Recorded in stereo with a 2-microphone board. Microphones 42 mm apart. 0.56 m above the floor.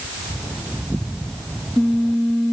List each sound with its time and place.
Only background noise.